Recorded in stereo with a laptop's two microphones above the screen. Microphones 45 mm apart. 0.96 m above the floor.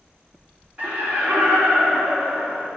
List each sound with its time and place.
0.8 s laughter: 25° right (ahead or behind), 2.5 m